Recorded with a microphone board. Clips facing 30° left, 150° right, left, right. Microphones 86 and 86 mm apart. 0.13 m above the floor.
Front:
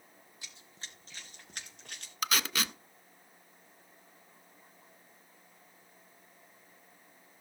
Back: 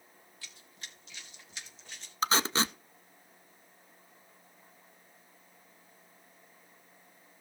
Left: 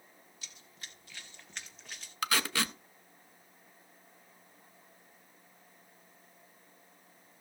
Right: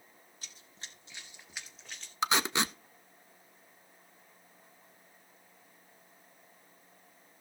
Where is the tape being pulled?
135° right, 0.5 m.